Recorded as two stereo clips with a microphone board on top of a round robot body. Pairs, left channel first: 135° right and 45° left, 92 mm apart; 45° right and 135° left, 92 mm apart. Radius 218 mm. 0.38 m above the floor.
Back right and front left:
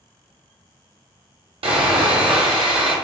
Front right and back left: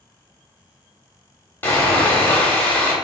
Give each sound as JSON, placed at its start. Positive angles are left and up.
{"t": 1.6, "sound": "sawing", "azimuth_deg": 25, "distance_m": 0.7}